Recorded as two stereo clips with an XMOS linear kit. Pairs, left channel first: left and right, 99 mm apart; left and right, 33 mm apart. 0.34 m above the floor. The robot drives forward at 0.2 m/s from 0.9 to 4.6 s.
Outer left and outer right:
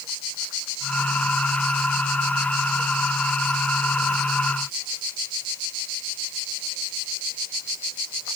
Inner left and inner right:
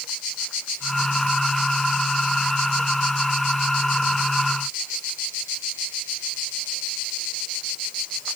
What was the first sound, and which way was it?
Only background noise.